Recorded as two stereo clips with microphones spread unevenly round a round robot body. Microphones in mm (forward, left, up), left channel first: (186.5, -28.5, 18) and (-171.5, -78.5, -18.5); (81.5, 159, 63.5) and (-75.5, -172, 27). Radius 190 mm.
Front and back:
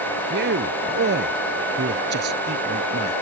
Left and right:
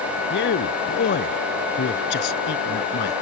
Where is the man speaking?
125° left.